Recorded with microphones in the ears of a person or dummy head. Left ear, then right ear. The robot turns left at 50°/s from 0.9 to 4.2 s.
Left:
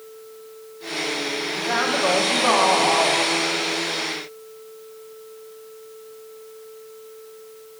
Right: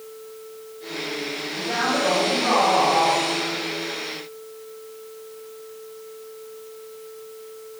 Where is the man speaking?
115° left, 0.8 m; by 3.2 s 35° left, 0.8 m.